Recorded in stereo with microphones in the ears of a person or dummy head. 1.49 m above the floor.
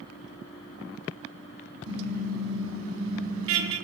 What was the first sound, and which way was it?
A car horn, 85° right.